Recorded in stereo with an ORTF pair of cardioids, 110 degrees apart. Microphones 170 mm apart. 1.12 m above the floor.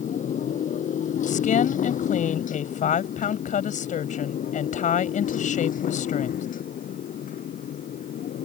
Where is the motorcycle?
45° left; by 8.4 s 55° left.